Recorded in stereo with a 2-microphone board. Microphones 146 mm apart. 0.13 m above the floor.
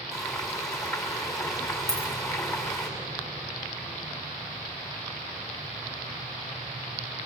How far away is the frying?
About 4.5 m.